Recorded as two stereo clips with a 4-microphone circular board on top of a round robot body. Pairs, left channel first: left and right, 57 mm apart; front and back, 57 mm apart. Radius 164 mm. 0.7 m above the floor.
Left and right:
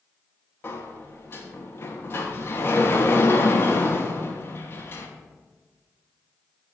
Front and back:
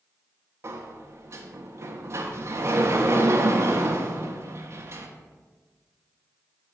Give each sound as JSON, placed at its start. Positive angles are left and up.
{"t": 0.6, "sound": "a sliding door", "azimuth_deg": 140, "distance_m": 0.5}